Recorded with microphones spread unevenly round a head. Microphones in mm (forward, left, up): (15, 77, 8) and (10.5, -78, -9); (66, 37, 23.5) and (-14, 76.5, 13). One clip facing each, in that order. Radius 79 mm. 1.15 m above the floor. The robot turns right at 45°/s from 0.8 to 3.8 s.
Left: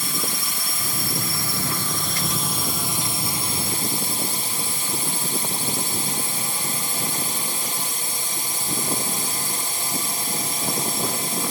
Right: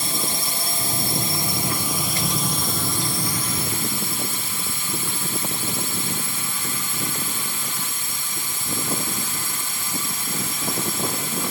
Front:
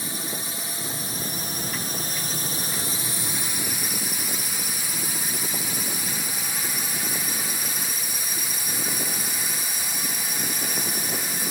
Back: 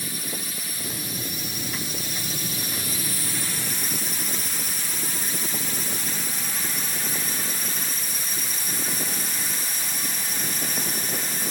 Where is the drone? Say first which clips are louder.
Right 2 dB, front 1 dB; 80° right; by 11.5 s 55° left.